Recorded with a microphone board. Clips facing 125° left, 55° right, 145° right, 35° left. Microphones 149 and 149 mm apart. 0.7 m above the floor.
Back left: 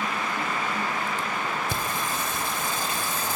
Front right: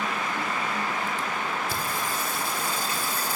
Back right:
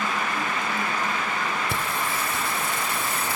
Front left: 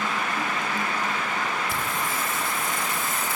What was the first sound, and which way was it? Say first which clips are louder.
Singing: back left 1 dB, back right 1 dB; 170° right.